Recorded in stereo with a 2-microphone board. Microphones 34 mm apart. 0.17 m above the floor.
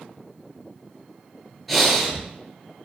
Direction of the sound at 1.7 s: Centre (ahead or behind).